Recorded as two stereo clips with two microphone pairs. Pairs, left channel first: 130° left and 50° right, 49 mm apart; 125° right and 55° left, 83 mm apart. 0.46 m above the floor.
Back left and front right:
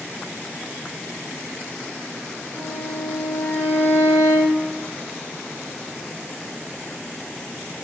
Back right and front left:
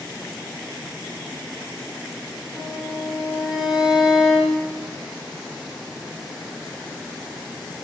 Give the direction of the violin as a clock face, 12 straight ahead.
7 o'clock.